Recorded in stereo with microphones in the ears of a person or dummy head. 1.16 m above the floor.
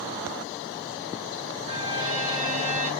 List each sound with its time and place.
1.7 s a violin: 30° right (ahead or behind), 1.1 m